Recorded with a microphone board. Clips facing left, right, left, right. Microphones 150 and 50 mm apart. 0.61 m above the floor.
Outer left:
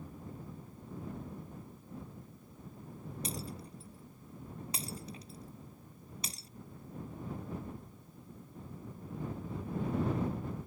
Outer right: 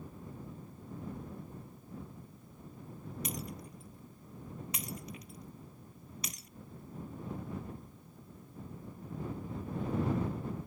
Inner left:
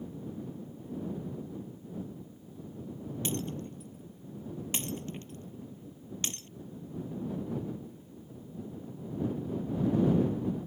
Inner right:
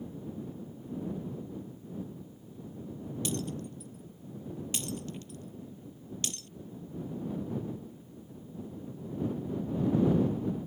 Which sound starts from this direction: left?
Breaking glass, at 3.2 s.